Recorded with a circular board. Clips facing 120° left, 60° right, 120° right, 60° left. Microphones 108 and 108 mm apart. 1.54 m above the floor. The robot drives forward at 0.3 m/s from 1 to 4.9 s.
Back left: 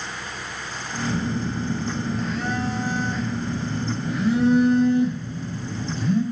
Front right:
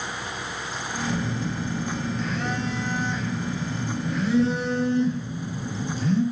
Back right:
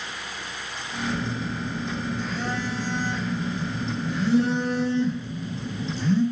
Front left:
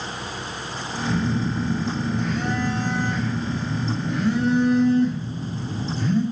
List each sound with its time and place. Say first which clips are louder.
1.1 s a phone buzzing: back left 3 dB, front left 6 dB; 55° left, 2.0 m; by 6.2 s 95° left, 1.7 m